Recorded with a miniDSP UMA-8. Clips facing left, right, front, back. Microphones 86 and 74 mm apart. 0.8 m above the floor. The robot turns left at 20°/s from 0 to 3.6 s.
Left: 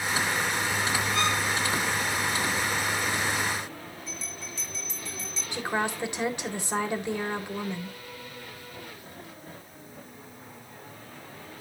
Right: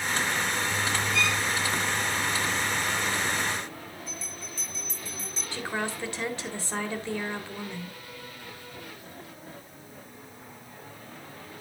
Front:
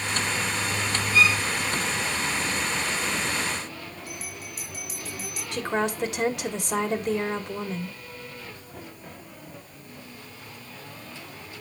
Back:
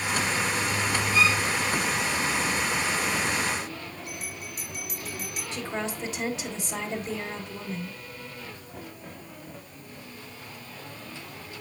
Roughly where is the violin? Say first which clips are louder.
Left 2 dB, front 2 dB; behind left.